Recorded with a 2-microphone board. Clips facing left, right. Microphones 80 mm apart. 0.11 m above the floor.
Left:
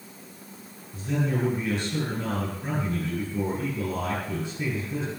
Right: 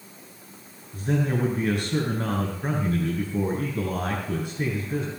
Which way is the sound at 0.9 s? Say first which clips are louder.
Right 2 dB; 55° right (ahead or behind).